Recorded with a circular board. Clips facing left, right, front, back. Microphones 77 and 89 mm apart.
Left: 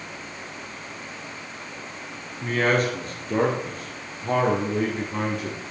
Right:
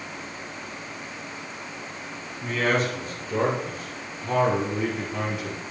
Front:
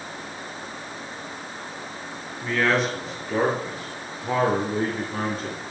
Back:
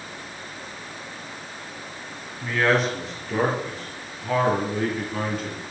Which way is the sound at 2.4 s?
100° left.